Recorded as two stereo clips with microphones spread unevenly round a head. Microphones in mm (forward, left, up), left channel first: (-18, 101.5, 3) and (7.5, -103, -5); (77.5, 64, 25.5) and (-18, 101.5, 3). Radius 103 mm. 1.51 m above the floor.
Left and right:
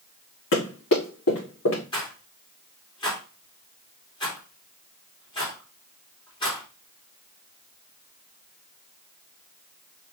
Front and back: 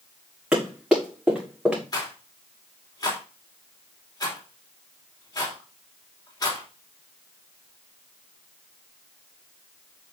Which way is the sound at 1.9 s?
30° left.